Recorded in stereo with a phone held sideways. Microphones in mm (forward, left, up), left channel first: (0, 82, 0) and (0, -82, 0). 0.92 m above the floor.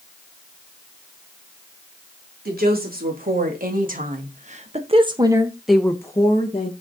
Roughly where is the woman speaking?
Right.